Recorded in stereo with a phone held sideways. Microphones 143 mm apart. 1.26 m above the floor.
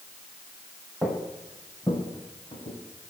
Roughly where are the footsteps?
Centre.